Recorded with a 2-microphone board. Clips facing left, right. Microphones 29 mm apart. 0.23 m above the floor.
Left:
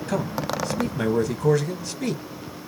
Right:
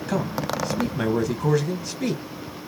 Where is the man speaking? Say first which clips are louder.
Right 1 dB; 5° right (ahead or behind), 1.2 m.